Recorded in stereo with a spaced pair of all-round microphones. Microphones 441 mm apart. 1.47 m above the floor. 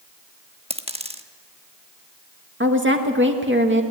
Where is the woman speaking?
25° right (ahead or behind), 2.0 m.